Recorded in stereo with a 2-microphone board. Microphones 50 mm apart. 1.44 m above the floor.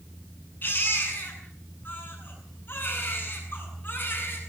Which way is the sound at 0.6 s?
40° left (ahead or behind).